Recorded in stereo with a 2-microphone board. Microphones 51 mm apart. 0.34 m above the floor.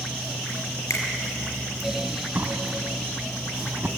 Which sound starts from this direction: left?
A finger snap, at 0.9 s.